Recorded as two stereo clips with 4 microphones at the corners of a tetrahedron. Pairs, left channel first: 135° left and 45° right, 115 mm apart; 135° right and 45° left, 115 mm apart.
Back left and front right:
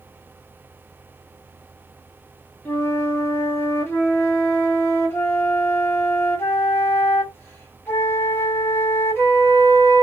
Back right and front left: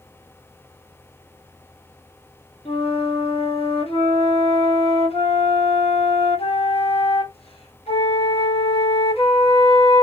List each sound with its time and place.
2.6 s a flute: 155° right, 1.0 m